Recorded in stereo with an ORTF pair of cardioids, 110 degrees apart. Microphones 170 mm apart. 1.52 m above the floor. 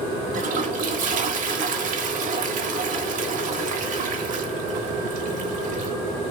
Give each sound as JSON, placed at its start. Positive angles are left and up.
{"t": 0.3, "sound": "a toilet flushing", "azimuth_deg": -55, "distance_m": 1.0}